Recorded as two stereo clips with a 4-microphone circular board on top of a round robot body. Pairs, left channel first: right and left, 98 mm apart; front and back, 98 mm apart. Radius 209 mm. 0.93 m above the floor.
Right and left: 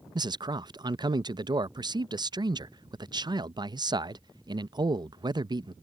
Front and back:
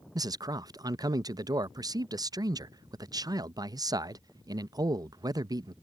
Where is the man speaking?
130° left.